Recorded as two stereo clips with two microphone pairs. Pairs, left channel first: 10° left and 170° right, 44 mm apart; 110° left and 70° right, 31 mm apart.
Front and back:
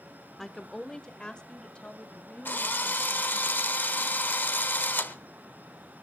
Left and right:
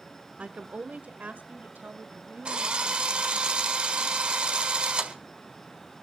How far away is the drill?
About 1.4 m.